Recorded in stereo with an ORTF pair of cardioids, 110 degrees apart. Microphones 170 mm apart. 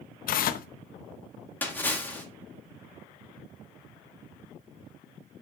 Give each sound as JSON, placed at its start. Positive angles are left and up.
{"t": 0.3, "sound": "tearing paper", "azimuth_deg": 60, "distance_m": 0.8}
{"t": 1.6, "sound": "a splash", "azimuth_deg": 10, "distance_m": 2.5}